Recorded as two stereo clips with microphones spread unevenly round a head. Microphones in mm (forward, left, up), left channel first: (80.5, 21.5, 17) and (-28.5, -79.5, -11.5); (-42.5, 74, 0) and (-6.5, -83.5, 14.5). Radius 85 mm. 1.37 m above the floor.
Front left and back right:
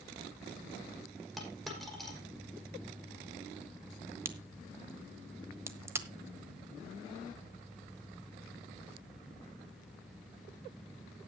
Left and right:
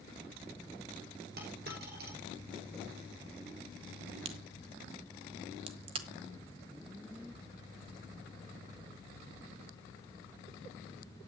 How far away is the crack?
About 1.4 m.